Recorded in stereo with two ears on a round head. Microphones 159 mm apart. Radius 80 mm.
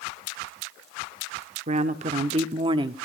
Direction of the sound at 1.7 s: 40° right (ahead or behind).